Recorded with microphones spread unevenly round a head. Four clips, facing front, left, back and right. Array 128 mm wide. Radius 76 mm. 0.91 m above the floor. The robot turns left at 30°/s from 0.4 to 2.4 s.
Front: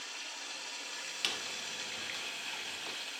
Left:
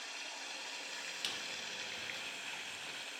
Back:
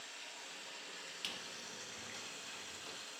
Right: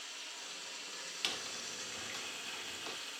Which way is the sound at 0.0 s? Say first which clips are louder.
Left 3 dB, front 5 dB; 80° left.